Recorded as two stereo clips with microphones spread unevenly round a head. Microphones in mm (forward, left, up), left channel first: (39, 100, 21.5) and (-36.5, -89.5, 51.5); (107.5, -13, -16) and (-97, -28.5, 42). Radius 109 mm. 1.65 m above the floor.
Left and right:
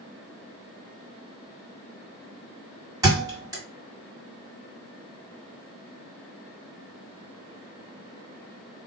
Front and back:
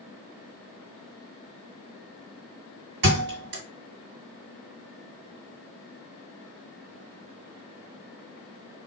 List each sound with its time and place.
3.0 s a thud: straight behind, 2.0 m